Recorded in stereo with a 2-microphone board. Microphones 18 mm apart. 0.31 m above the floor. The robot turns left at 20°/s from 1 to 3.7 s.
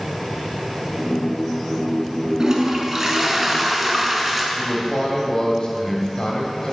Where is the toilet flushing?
35° right (ahead or behind), 0.8 m; by 4.5 s 10° right (ahead or behind), 0.8 m.